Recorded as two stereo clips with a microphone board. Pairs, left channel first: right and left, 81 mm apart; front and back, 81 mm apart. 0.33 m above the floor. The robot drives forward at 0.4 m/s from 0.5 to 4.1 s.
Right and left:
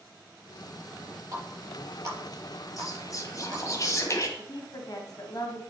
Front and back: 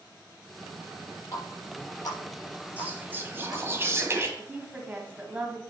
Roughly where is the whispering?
Behind right.